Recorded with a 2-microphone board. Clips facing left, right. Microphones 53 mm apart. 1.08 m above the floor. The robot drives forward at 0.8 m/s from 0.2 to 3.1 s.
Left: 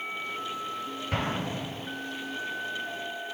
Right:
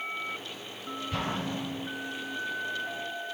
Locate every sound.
1.1 s an explosion: 50° left (ahead or behind), 5 m; by 1.9 s 45° left (ahead or behind), 5.5 m